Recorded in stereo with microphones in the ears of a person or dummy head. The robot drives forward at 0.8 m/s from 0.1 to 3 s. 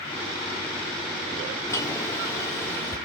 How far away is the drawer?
About 2 m.